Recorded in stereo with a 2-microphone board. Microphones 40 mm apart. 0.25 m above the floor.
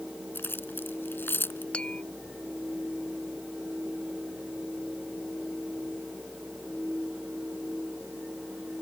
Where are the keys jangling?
65° left (ahead or behind).